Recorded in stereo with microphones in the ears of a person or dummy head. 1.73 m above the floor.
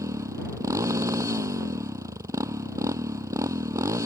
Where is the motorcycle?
25° right (ahead or behind).